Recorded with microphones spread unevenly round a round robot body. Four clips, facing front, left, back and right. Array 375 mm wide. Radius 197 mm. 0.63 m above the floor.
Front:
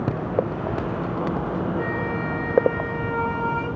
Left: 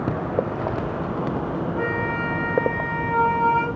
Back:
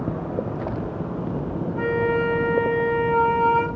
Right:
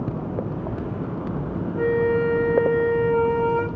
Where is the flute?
155° left, 4.5 m.